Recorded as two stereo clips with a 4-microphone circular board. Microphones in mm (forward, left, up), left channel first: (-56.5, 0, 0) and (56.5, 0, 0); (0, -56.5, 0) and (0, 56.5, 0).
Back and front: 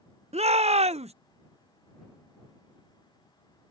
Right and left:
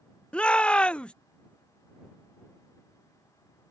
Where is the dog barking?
No dog barking in this recording.